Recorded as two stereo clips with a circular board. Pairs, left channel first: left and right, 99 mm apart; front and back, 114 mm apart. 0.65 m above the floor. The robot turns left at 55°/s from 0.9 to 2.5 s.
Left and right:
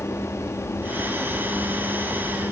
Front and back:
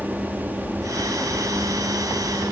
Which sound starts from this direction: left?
An aircraft, at 0.0 s.